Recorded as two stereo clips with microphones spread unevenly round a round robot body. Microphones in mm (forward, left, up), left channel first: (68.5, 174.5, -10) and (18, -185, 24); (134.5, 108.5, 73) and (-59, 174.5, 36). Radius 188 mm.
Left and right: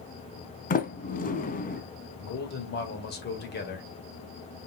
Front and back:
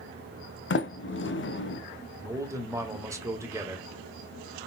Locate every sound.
0.7 s a sliding door: 15° left, 0.7 m
2.2 s a man speaking: 110° left, 1.5 m